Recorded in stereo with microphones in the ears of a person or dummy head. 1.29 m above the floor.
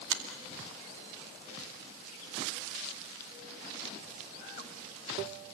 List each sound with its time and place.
0.1 s a finger snap: 70° right (ahead or behind), 2.5 m